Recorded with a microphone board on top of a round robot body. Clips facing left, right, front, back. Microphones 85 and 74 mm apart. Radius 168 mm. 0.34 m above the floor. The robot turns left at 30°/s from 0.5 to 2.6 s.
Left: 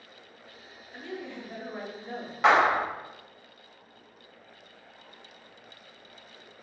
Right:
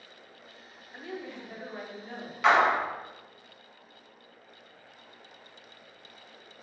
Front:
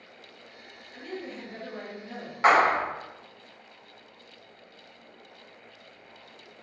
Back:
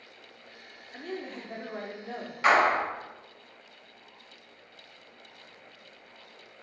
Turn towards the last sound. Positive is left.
turn(degrees=35)